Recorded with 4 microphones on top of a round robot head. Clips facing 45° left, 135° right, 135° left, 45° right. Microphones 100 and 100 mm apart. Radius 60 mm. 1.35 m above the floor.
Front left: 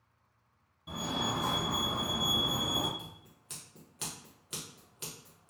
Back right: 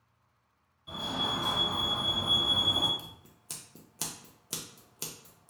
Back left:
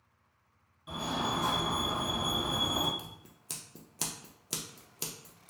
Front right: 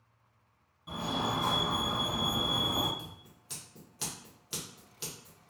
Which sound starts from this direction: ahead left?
A fire alarm, at 0.9 s.